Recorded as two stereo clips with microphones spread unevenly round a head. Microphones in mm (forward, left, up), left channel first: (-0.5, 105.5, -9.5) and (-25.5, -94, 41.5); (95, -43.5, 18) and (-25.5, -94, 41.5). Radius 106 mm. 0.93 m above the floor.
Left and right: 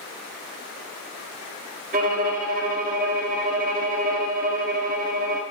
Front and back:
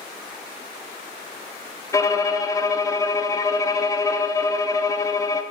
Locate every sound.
1.9 s a violin: 45° right, 1.2 m